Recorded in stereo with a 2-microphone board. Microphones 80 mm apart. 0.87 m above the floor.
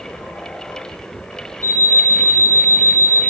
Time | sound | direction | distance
1.6 | an alarm clock | 40° right (ahead or behind) | 3.5 m